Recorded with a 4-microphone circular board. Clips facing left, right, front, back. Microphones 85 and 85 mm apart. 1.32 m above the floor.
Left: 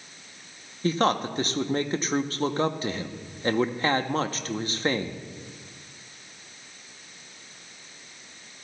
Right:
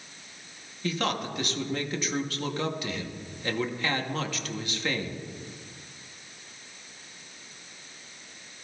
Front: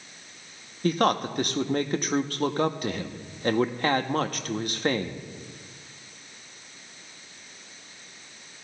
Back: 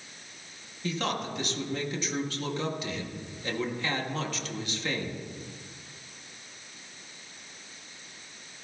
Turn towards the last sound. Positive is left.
turn(degrees=40)